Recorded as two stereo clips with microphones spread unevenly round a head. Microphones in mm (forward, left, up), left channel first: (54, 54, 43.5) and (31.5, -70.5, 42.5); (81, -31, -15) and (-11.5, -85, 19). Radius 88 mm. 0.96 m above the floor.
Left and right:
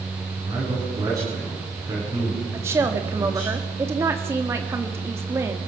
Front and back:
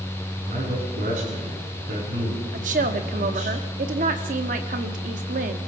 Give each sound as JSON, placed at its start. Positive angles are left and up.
{"t": 0.4, "sound": "a man speaking", "azimuth_deg": -170, "distance_m": 9.5}
{"t": 2.5, "sound": "a woman speaking", "azimuth_deg": -170, "distance_m": 1.8}